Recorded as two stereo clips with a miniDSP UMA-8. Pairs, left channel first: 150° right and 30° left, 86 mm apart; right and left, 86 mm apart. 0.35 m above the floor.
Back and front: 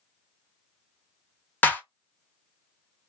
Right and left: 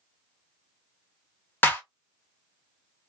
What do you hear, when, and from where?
1.6 s a clap: 115° right, 0.9 m